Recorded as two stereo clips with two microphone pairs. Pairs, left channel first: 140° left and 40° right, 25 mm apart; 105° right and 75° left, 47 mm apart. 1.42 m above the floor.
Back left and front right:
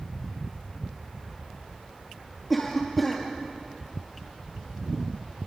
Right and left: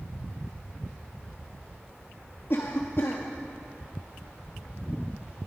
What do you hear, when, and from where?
2.5 s a cough: 135° right, 2 m